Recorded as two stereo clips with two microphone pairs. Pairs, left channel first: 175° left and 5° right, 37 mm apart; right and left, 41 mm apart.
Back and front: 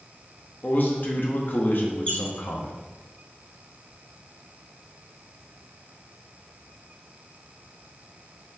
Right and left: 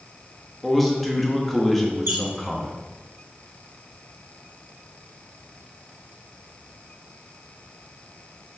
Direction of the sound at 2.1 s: 115° left.